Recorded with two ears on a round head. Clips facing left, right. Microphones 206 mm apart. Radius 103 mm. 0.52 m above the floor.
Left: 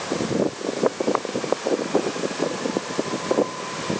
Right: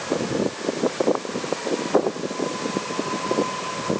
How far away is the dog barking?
I don't hear a dog barking.